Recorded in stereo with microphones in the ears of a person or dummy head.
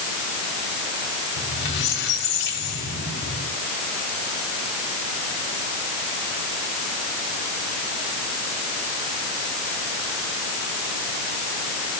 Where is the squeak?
55° left (ahead or behind), 6 m.